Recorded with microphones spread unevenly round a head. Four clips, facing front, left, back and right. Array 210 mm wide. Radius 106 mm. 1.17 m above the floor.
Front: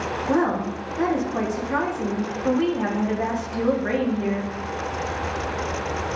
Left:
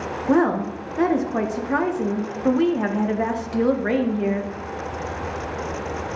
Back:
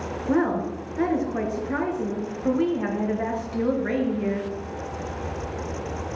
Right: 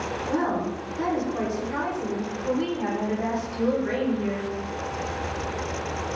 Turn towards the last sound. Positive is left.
turn(degrees=80)